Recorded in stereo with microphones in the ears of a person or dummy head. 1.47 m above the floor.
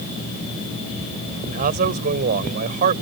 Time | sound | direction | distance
1.5 | a man speaking | 50° right (ahead or behind) | ?